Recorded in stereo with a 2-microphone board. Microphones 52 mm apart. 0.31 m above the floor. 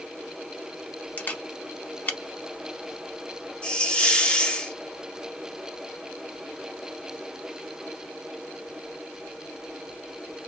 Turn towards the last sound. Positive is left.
turn(degrees=25)  # may be behind; listen again after turning